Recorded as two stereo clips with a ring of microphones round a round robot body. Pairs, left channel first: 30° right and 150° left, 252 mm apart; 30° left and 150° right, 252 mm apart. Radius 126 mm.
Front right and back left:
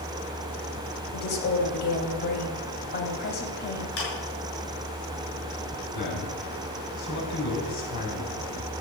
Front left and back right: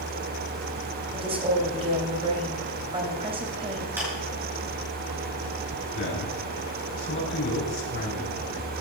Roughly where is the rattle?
No rattle in this recording.